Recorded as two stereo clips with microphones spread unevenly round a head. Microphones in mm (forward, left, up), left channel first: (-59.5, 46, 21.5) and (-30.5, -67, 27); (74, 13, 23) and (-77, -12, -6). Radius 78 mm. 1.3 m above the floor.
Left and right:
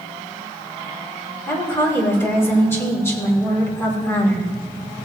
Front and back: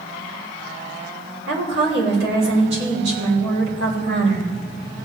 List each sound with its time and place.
1.5 s a woman speaking: 175° left, 5 m